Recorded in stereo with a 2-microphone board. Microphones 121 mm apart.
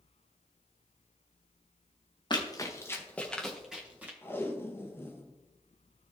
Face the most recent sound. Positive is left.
turn(degrees=20)  # may be behind; listen again after turning